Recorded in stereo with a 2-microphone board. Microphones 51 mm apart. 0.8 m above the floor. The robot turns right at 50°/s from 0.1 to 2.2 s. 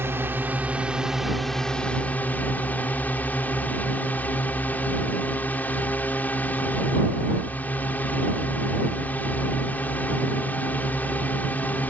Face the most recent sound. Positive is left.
turn(degrees=40)